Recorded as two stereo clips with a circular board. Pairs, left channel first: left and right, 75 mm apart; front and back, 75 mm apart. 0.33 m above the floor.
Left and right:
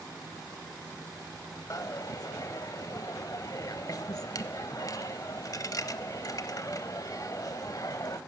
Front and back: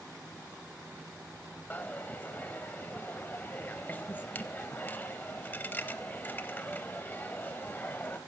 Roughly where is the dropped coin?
Ahead left.